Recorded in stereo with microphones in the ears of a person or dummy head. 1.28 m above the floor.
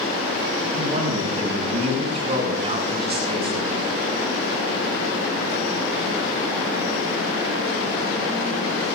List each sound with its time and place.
0.7 s a man speaking: 45° right (ahead or behind), 9.5 m; by 3.9 s 30° right (ahead or behind), 6.5 m